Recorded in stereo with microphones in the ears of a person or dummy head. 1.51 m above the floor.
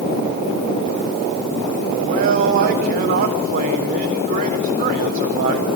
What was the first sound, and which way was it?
A man speaking, 40° right (ahead or behind).